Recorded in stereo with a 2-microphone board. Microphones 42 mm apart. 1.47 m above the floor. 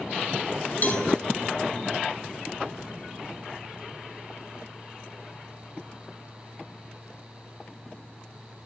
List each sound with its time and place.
0.8 s a cowbell: 45° left (ahead or behind), 7 m